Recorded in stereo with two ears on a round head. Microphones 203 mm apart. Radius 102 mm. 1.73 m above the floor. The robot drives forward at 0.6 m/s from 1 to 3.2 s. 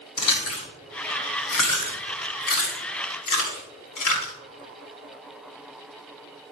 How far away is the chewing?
About 3.5 m.